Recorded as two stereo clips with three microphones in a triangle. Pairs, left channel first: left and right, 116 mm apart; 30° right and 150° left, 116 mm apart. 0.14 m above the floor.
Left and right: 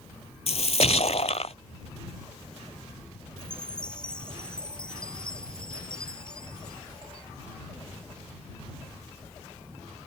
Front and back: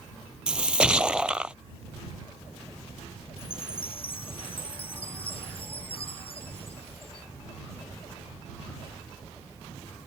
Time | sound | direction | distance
0.5 | a splash | 70° left | ?
3.4 | a chime | 10° left | ?